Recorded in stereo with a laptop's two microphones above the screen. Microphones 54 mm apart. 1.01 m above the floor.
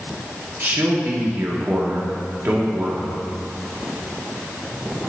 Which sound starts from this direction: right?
A man speaking, at 0.6 s.